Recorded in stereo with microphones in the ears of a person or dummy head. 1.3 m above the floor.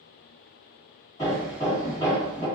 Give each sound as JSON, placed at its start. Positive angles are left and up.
{"t": 1.2, "sound": "hammering", "side_deg": 20, "distance_m": 1.6}